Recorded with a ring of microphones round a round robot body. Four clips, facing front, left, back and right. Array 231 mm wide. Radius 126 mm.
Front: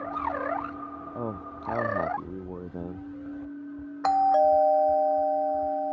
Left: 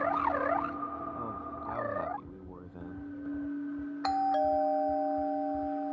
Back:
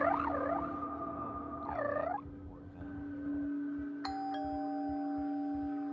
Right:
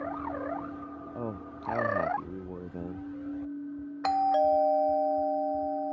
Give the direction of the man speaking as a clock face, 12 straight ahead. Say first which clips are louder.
Right 1 dB, front 6 dB; 1 o'clock.